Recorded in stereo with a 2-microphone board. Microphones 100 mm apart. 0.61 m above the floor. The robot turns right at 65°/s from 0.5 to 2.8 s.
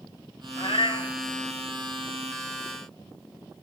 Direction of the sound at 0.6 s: 95° left.